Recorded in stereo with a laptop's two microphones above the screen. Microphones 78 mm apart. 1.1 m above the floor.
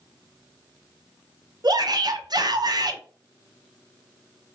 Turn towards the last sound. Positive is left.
turn(degrees=-60)  # may be behind; listen again after turning